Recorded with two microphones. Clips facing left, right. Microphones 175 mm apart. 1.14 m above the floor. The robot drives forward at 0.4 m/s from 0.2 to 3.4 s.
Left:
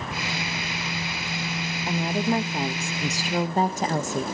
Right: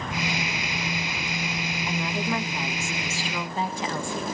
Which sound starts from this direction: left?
A woman speaking, at 1.9 s.